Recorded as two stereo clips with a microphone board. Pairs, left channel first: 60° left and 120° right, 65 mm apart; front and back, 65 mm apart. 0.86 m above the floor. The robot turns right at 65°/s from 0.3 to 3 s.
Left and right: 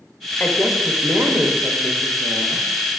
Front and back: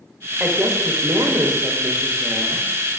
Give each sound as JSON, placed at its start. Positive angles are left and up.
{"t": 0.4, "sound": "a woman speaking", "azimuth_deg": 130, "distance_m": 0.8}